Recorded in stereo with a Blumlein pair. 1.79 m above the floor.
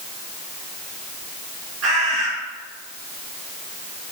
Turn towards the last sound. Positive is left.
turn(degrees=-40)